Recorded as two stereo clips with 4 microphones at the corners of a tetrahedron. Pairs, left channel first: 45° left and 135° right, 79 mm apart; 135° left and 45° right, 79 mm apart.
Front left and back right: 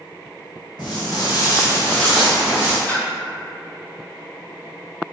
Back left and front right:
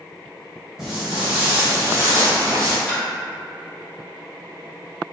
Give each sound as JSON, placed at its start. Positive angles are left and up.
{"t": 0.8, "sound": "footsteps", "azimuth_deg": 40, "distance_m": 1.6}
{"t": 2.9, "sound": "a splash", "azimuth_deg": 85, "distance_m": 0.8}